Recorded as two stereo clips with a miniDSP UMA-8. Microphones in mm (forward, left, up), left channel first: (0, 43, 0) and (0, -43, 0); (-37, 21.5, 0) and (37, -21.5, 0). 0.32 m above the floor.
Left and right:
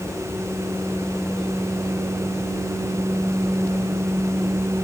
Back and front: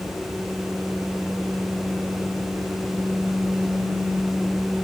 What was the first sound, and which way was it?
Only background noise.